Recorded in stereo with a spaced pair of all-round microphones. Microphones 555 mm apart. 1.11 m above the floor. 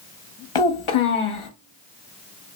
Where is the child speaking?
60° left (ahead or behind), 0.8 m.